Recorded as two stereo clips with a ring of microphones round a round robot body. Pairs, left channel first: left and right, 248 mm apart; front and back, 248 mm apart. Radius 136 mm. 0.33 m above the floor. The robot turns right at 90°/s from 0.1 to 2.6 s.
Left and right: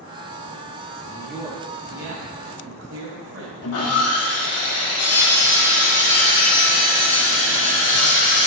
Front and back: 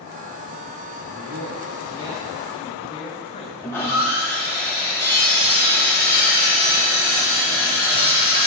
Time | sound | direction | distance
1.0 | a man speaking | 155° left | 2 m
3.6 | sawing | 80° left | 1.4 m